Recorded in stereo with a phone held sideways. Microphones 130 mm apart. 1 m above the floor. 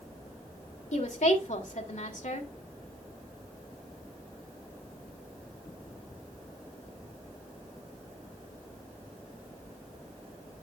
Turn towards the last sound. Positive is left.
turn(degrees=70)  # may be behind; listen again after turning